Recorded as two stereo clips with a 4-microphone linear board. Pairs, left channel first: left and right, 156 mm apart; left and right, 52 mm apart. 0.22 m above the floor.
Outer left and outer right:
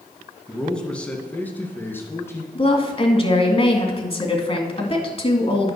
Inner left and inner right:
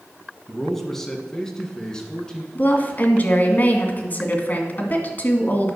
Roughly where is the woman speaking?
Left.